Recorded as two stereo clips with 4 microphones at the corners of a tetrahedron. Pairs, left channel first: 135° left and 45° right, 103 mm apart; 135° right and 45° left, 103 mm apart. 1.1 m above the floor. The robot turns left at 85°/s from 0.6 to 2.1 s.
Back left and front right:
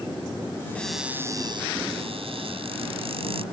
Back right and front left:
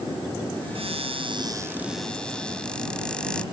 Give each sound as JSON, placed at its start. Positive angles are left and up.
{"t": 0.8, "sound": "a cupboard door", "azimuth_deg": 60}